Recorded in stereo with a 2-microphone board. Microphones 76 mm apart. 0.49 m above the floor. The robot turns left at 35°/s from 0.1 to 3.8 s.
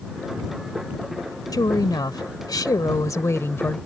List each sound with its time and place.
1.5 s a woman speaking: 110° left; by 3.8 s 30° left